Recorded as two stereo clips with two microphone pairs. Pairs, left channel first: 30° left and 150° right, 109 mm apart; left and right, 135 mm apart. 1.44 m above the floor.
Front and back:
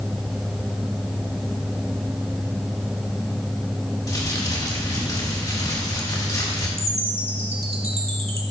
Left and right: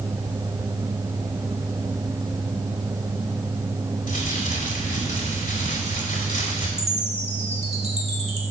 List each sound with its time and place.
4.1 s crumpling: 90° left, 2.5 m
6.8 s a chime: 125° right, 2.0 m